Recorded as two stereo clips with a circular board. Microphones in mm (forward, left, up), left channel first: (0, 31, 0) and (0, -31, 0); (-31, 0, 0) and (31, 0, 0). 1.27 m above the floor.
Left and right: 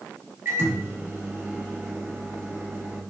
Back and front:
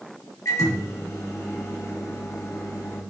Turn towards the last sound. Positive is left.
turn(degrees=-145)